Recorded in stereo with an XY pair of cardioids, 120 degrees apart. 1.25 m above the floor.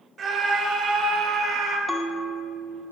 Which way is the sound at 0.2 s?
45° right.